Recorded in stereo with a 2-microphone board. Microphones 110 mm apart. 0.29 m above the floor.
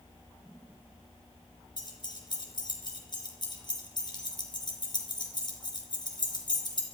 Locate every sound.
1.8 s keys jangling: 40° left (ahead or behind), 3.5 m